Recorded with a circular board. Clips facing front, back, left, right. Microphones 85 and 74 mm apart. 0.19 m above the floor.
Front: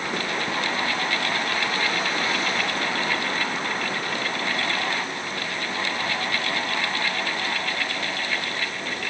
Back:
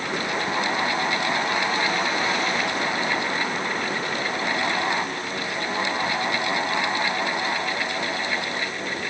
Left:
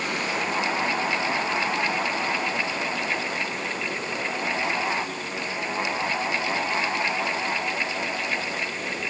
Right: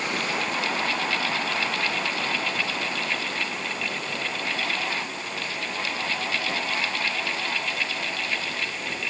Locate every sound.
Only background noise.